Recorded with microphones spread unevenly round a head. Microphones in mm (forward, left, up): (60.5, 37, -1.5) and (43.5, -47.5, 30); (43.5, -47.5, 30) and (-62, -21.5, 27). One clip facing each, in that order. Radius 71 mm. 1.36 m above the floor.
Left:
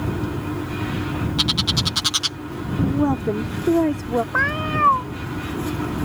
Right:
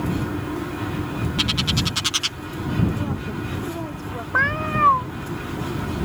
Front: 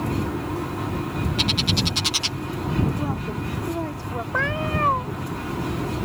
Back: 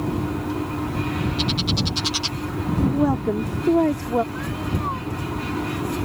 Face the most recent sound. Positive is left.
turn(degrees=-20)